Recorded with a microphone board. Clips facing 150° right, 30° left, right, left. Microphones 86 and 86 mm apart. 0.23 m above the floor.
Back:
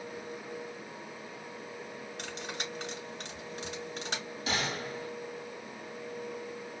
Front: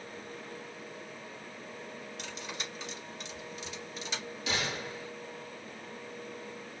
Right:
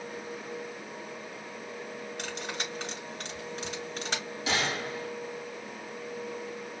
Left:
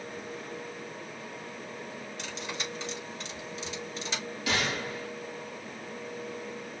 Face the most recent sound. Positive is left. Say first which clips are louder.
# back 1 dB, even
turn(degrees=-140)